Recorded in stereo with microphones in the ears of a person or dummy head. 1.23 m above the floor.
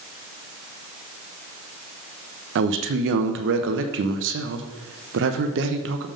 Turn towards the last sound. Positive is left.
turn(degrees=-65)  # may be behind; listen again after turning